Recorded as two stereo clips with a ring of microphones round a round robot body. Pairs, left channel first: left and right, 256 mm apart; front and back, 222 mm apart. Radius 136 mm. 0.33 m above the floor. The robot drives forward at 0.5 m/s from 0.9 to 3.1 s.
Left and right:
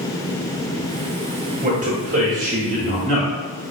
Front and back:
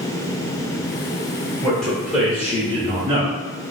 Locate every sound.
1.6 s a man speaking: 80° right, 1.6 m; by 3.3 s 125° right, 1.7 m